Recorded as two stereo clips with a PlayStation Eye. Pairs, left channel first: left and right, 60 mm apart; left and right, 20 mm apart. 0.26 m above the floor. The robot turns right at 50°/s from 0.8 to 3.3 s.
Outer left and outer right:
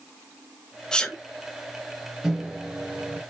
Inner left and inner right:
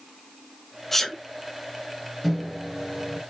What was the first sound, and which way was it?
A sneeze, 10° left (ahead or behind).